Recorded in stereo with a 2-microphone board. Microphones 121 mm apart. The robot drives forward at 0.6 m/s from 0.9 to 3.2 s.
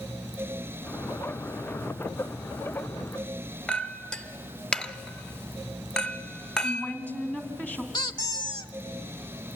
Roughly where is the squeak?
Left.